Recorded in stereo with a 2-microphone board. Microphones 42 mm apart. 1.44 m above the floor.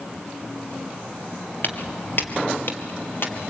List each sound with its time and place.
1.6 s footsteps: 50° left (ahead or behind), 2 m; by 3.5 s 55° left (ahead or behind), 3 m